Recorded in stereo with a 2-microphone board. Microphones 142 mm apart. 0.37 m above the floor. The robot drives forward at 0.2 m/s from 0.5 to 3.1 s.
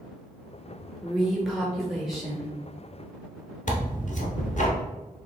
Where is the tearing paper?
60° left (ahead or behind), 1.2 m.